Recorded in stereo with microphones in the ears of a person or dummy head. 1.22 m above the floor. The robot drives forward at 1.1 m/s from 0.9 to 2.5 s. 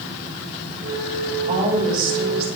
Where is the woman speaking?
35° right (ahead or behind), 3.5 m; by 2.5 s 50° right (ahead or behind), 2.5 m.